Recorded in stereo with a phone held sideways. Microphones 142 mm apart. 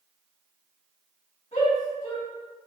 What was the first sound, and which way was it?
A shout, 45° left (ahead or behind).